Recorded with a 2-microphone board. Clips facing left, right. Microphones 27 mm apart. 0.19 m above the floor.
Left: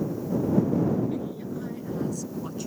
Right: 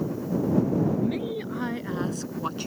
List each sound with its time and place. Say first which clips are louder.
0.9 s a woman speaking: right 2 dB; 55° right (ahead or behind); by 2.7 s 45° right (ahead or behind)